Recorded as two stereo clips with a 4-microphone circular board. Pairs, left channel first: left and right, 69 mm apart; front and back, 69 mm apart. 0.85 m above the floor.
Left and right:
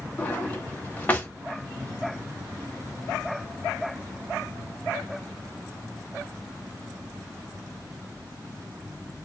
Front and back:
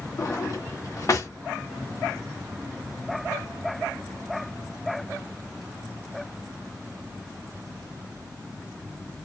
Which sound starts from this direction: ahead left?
A drawer, at 0.2 s.